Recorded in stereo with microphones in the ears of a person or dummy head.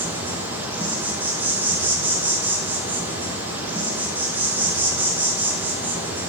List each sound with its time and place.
0.0 s an insect: 15° right (ahead or behind), 2.5 m